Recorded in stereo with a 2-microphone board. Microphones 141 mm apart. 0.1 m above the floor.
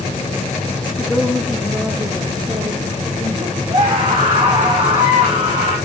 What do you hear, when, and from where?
1.0 s a woman speaking: 10° left (ahead or behind), 1.3 m; by 3.6 s 45° right (ahead or behind), 2.5 m
3.7 s a scream: 40° right (ahead or behind), 6.5 m